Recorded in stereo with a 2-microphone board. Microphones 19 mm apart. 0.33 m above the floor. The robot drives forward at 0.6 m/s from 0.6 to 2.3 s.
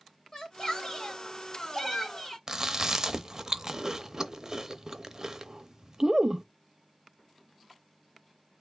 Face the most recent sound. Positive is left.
turn(degrees=-35)  # may be behind; listen again after turning